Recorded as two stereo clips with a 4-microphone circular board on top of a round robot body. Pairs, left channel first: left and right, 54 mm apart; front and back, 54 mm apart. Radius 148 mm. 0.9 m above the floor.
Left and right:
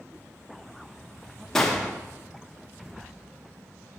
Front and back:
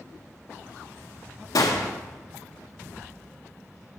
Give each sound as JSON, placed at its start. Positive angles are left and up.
{"t": 1.6, "sound": "a gunshot", "azimuth_deg": 10, "distance_m": 0.6}